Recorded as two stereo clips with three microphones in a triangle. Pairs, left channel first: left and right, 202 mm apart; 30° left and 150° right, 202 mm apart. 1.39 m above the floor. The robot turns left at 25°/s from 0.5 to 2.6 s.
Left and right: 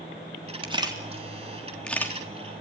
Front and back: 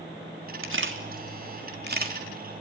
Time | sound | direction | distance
0.6 | a camera shutter | 155° right | 3.5 m